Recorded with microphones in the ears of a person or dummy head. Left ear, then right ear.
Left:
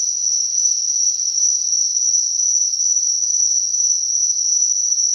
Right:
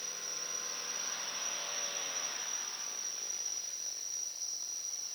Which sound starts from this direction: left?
An insect, at 0.0 s.